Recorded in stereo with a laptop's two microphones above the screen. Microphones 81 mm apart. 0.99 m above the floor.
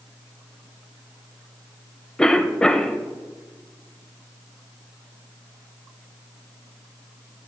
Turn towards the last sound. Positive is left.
turn(degrees=10)  # may be behind; listen again after turning